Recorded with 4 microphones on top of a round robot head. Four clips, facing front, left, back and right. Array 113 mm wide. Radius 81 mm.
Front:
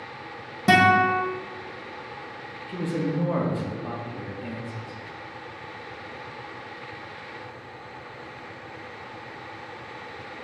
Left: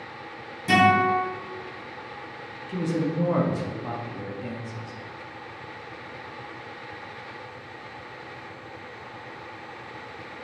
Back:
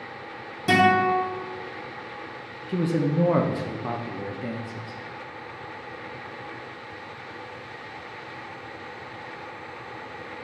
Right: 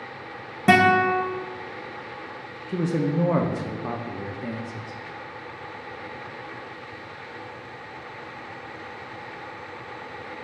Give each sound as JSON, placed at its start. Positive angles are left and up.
{"t": 0.7, "sound": "a guitar", "azimuth_deg": -65, "distance_m": 1.7}
{"t": 2.7, "sound": "a man speaking", "azimuth_deg": -140, "distance_m": 1.1}